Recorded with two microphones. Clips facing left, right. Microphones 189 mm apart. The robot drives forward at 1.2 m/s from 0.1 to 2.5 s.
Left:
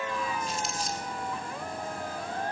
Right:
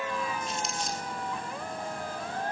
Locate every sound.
0.5 s crumpling: centre (ahead or behind), 1.0 m